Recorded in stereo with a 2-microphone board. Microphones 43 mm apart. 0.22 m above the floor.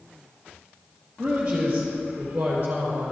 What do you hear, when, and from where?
1.2 s a man speaking: 20° right (ahead or behind), 4 m; by 3.1 s 40° right (ahead or behind), 4 m